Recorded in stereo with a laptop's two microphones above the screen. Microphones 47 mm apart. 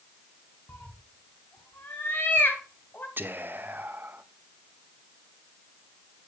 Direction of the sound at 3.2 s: 45° right (ahead or behind).